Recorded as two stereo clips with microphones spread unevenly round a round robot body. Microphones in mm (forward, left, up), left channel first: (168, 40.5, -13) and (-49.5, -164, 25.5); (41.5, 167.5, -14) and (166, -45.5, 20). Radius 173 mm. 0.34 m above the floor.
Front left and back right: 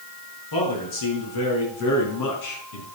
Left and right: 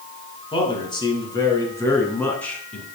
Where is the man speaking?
55° left, 4 m; by 2.9 s 35° left, 3 m.